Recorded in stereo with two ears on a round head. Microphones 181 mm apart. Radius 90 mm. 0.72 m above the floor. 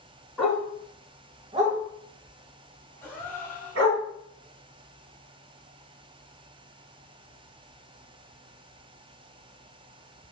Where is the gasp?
10° left (ahead or behind), 1.5 m.